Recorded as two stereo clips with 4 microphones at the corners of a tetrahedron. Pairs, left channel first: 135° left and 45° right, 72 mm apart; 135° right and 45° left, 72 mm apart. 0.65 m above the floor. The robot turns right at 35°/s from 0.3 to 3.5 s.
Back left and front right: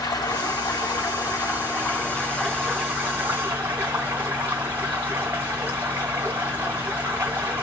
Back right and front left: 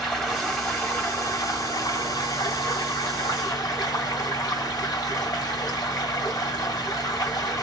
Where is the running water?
140° left, 2 m; by 7.6 s 110° right, 2 m.